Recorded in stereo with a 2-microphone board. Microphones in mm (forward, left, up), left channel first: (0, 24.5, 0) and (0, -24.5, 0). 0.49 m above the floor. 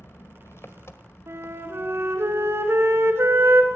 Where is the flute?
65° right (ahead or behind), 2.5 m.